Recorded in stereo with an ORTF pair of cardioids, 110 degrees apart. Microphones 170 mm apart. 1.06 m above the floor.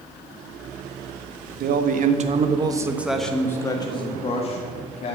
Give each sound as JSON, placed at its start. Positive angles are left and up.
{"t": 1.6, "sound": "a man speaking", "azimuth_deg": -65, "distance_m": 1.3}